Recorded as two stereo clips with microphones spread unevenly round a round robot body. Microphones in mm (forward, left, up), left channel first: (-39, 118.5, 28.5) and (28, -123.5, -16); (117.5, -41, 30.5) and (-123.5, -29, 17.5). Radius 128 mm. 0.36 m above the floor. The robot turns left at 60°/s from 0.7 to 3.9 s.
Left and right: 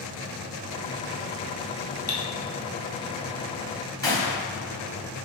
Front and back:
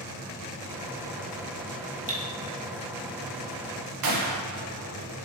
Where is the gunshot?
175° right, 0.6 m.